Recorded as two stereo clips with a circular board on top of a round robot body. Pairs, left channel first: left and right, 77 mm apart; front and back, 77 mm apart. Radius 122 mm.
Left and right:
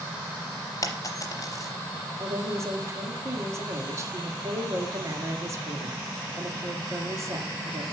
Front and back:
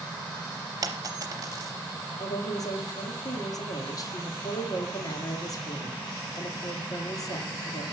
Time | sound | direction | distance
0.8 | a dropped coin | 135° left | 0.6 m
2.2 | a woman speaking | 40° right | 2 m